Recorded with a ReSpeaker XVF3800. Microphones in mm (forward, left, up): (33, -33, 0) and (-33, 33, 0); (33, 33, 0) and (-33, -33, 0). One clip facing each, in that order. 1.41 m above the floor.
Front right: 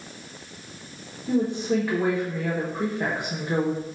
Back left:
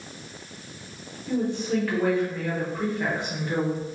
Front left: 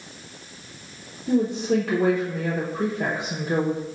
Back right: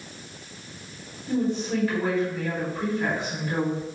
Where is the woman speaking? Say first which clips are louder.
Front right 2 dB, front left 4 dB; 25° left, 0.9 m.